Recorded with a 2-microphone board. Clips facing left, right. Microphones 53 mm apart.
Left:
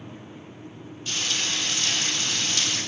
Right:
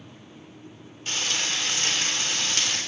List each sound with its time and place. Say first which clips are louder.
1.1 s frying: right 1 dB; 45° right (ahead or behind), 3.5 m